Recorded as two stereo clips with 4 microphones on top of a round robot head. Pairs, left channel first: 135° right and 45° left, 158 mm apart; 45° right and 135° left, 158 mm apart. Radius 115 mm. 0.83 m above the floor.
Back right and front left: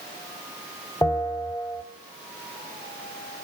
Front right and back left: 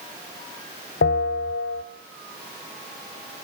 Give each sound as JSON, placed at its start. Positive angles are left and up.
{"t": 1.0, "sound": "a bell", "azimuth_deg": -65, "distance_m": 1.4}